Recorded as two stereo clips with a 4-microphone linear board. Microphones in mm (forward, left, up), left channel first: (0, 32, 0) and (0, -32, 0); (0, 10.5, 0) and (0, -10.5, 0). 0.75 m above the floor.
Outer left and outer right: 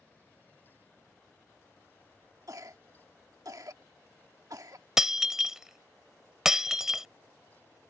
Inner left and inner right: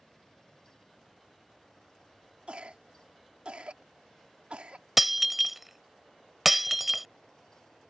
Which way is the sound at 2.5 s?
60° right (ahead or behind).